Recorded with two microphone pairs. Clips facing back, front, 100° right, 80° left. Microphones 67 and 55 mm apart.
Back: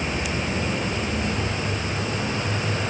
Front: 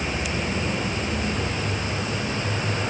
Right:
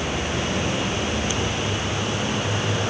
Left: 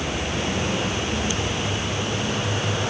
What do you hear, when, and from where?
Only background noise.